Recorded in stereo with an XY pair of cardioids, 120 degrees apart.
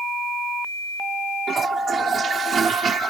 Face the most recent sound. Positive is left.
turn(degrees=-35)